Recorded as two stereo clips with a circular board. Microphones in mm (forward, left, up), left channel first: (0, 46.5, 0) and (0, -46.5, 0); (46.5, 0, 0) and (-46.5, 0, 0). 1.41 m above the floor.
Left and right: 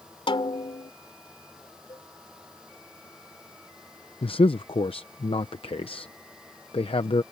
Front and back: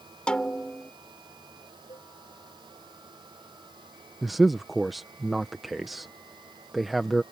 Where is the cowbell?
40° left.